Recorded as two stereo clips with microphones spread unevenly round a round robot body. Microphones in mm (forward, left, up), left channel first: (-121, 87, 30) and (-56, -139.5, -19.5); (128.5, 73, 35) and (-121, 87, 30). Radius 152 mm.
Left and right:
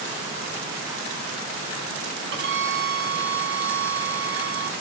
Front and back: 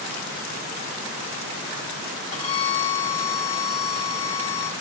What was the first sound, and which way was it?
A violin, 80° right.